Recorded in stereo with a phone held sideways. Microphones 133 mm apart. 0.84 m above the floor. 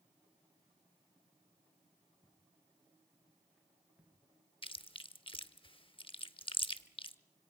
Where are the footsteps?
15° left (ahead or behind), 5.5 m; by 4.1 s 15° right (ahead or behind), 4.5 m.